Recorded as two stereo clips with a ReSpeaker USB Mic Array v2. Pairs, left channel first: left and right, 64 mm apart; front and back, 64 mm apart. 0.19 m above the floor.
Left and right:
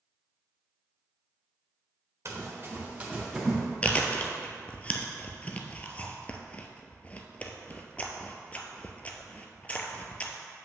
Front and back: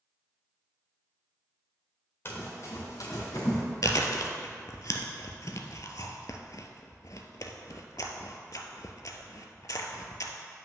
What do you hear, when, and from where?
2.2 s running footsteps: 50° right, 1.8 m; by 3.6 s 5° right, 2.5 m
3.8 s chewing: 25° left, 0.6 m